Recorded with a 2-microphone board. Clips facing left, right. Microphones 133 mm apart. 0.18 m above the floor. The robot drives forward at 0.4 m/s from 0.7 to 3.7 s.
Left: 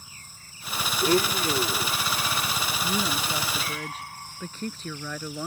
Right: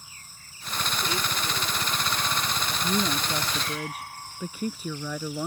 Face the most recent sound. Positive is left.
turn(degrees=-10)  # may be behind; listen again after turning